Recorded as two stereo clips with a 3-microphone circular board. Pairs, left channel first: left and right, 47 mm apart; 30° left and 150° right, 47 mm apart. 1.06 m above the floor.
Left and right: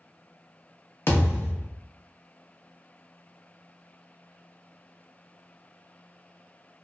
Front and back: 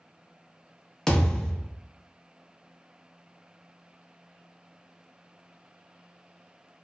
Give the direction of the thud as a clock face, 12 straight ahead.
8 o'clock.